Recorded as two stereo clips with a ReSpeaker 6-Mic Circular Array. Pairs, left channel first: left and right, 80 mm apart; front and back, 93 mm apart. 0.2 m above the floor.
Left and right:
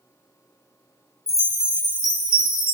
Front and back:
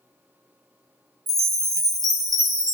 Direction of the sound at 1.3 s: 135° left.